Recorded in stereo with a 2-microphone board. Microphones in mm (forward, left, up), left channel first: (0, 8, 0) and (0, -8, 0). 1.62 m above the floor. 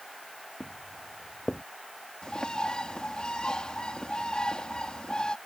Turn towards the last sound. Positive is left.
turn(degrees=60)  # may be behind; listen again after turning